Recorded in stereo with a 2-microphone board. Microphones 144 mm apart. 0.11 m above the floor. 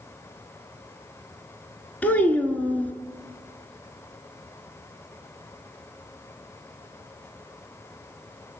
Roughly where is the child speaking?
Centre.